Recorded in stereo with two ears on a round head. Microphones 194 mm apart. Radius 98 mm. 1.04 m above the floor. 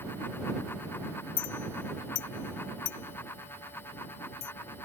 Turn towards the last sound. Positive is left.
turn(degrees=80)